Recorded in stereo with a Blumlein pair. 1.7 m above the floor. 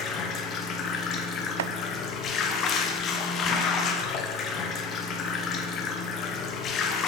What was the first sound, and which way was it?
Running water, 30° left.